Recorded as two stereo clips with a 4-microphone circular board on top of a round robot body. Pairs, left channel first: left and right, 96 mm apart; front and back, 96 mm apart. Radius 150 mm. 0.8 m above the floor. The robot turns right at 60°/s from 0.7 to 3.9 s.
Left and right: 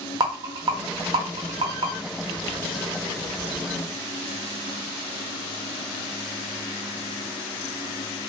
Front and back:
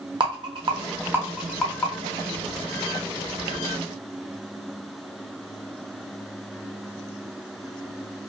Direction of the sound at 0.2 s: 135° right.